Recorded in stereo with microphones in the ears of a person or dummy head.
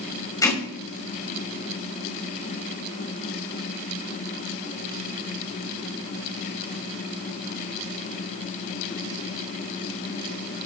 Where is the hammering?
15° left (ahead or behind), 5.5 m.